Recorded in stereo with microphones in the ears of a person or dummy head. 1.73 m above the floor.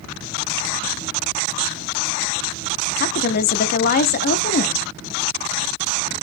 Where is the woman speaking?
55° left (ahead or behind), 0.6 m.